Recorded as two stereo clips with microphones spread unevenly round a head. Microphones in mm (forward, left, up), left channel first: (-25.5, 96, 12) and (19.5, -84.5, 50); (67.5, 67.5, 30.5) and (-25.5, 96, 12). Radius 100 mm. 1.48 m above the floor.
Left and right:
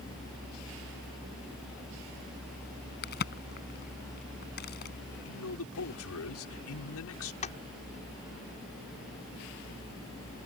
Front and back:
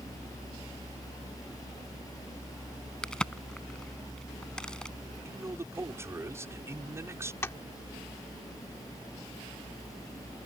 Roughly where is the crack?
Ahead left.